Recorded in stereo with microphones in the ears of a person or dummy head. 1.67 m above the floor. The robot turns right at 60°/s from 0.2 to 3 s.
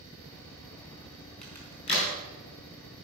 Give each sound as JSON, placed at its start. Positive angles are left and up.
{"t": 1.4, "sound": "a crack", "side_deg": 5, "distance_m": 4.5}